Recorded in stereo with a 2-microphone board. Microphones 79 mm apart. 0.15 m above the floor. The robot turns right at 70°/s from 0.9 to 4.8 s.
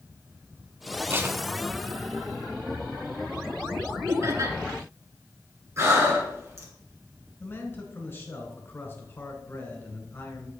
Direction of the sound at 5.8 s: 35° right (ahead or behind).